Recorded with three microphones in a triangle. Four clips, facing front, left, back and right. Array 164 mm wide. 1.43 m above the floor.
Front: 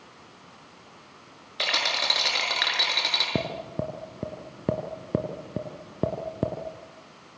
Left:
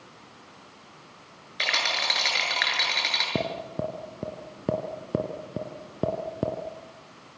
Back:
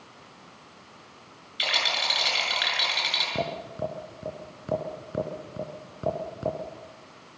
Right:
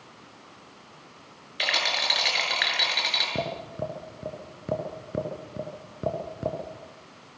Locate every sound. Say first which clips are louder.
1.6 s a rattle: even, front 1 dB; straight ahead, 7 m
3.4 s tapping: left 3 dB, even; 40° left, 4 m